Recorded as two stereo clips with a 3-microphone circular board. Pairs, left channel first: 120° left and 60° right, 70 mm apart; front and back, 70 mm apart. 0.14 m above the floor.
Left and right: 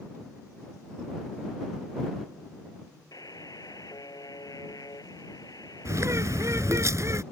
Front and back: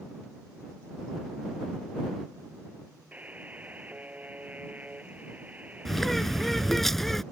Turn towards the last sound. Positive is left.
turn(degrees=-85)